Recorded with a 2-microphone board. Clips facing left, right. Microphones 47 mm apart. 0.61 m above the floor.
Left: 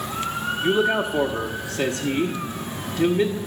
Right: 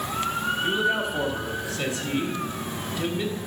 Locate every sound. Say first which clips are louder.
0.6 s a man speaking: left 6 dB; 55° left (ahead or behind), 1.0 m